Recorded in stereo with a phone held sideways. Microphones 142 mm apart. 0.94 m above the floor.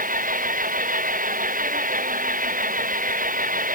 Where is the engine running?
90° right.